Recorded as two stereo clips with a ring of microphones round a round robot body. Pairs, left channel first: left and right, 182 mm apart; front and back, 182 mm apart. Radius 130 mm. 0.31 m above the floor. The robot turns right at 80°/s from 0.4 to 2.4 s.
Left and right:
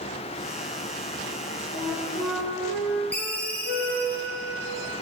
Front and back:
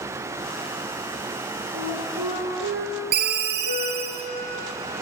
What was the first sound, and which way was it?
A flute, 165° left.